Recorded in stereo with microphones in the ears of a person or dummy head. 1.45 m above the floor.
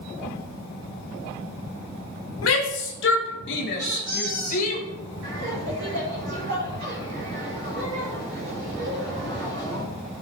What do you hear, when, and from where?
2.4 s a shout: 85° left, 1.7 m; by 4.8 s 40° left (ahead or behind), 1.7 m
3.8 s a squeak: 25° right (ahead or behind), 3 m
5.2 s laughter: 55° right (ahead or behind), 4 m